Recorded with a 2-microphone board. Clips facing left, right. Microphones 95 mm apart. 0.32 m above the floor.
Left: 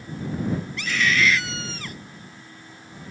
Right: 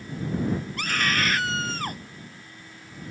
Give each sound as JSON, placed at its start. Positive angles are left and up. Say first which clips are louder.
{"t": 0.8, "sound": "a scream", "louder": "left 6 dB", "side_deg": -45}